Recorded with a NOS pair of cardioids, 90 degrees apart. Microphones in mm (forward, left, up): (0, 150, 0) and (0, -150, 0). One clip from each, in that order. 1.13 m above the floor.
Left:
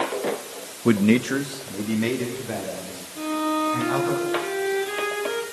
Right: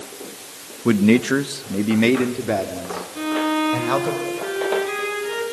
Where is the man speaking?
Straight ahead, 1.3 m; by 4.2 s 75° right, 5 m.